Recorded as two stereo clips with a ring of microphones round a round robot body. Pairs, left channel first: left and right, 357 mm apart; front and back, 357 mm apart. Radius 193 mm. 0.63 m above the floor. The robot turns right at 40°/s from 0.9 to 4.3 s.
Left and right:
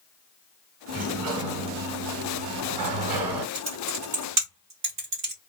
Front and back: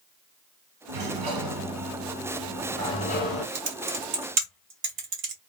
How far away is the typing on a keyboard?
About 1.1 m.